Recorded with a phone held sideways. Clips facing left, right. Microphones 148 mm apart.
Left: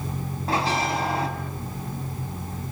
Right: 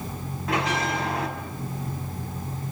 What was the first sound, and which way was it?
A bell, 30° left (ahead or behind).